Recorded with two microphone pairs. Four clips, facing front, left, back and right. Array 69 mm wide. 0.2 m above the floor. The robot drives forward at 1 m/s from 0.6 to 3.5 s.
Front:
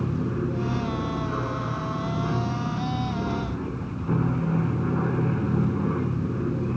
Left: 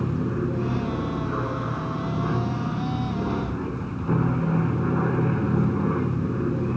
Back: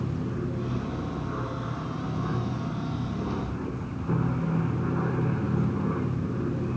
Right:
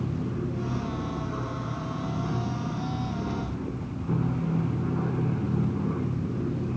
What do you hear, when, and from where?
0.0 s an aircraft: 75° left; by 6.8 s 90° left